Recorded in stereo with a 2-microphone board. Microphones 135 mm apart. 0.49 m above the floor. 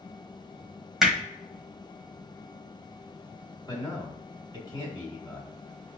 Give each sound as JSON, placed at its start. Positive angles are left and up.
{"t": 1.0, "sound": "hammering", "side_deg": -5, "distance_m": 1.2}
{"t": 3.7, "sound": "a man speaking", "side_deg": 30, "distance_m": 1.6}